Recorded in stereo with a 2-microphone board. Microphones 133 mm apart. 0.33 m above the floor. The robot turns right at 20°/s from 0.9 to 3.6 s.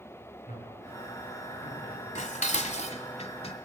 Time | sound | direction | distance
0.5 | a man speaking | 60° left (ahead or behind) | 6 m
2.1 | dishes clattering | 65° left (ahead or behind) | 1.3 m